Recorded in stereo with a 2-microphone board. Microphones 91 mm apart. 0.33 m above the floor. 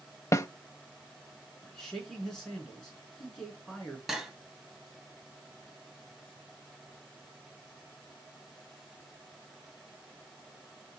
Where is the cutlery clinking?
Centre (ahead or behind), 1.3 m.